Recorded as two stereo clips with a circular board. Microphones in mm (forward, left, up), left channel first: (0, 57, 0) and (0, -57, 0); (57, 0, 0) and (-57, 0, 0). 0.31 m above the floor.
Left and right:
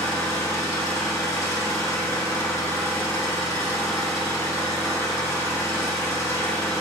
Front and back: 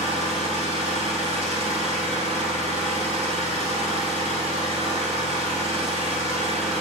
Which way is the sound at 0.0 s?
155° left.